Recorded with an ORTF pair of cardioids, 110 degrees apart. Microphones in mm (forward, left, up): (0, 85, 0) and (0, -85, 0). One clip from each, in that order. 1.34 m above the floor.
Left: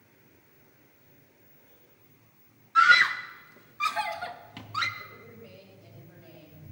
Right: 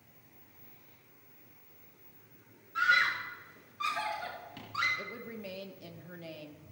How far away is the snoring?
I don't hear snoring.